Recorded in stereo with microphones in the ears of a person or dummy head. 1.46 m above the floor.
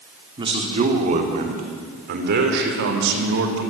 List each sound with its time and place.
0.4 s a man speaking: 35° right (ahead or behind), 3 m; by 3.6 s 75° right (ahead or behind), 4.5 m